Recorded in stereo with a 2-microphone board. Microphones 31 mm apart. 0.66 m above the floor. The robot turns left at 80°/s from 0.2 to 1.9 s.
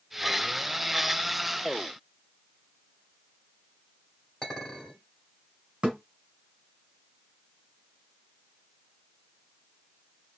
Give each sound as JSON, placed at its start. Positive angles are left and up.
{"t": 4.4, "sound": "a clink", "side_deg": 20, "distance_m": 2.0}
{"t": 5.8, "sound": "a thud", "side_deg": -40, "distance_m": 1.3}